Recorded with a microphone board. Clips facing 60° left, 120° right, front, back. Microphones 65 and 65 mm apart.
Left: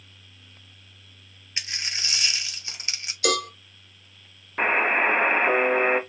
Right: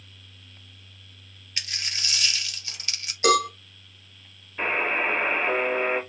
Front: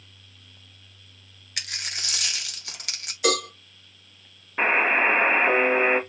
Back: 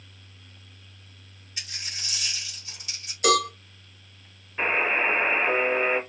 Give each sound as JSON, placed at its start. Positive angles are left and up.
{"t": 1.6, "sound": "a dropped coin", "azimuth_deg": -5, "distance_m": 0.5}
{"t": 3.2, "sound": "a cowbell", "azimuth_deg": -85, "distance_m": 1.4}
{"t": 4.6, "sound": "a buzzer", "azimuth_deg": 45, "distance_m": 0.6}